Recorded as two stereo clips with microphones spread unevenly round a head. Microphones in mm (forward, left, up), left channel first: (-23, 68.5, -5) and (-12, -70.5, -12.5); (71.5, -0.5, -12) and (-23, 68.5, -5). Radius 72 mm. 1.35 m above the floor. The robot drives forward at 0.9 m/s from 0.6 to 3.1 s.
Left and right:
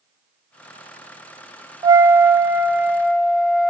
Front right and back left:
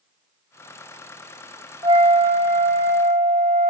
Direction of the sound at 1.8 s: 150° right.